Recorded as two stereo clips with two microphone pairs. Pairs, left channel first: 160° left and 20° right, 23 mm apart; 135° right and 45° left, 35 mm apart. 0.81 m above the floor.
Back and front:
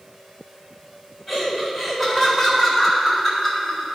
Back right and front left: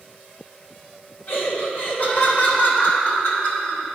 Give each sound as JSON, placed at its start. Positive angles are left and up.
{"t": 1.3, "sound": "laughter", "azimuth_deg": -105, "distance_m": 3.0}